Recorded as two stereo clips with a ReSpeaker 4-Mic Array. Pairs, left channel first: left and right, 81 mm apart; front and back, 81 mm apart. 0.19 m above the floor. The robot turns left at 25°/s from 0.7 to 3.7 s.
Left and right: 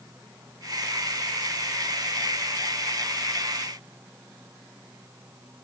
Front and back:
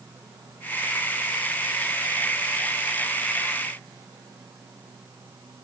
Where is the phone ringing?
No phone ringing in this recording.